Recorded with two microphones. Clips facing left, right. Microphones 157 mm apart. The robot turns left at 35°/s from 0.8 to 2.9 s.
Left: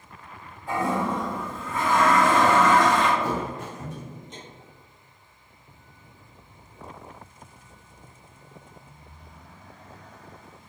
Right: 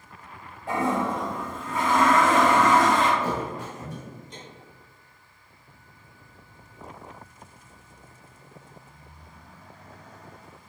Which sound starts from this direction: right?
A toilet flushing, at 0.7 s.